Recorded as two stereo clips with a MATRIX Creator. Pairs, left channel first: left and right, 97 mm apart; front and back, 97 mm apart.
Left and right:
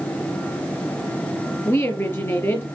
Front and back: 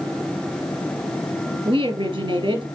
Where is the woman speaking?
150° left, 3.5 m.